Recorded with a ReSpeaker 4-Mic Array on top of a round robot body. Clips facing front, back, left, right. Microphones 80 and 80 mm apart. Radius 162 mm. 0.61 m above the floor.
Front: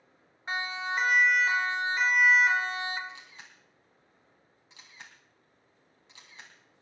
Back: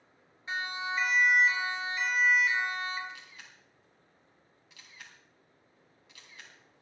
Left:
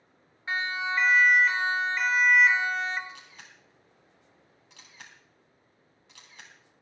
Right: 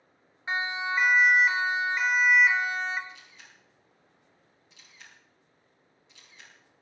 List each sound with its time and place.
0.5 s a siren: 25° right, 3.5 m; by 3.0 s 5° right, 2.5 m
3.1 s a camera shutter: 60° left, 3 m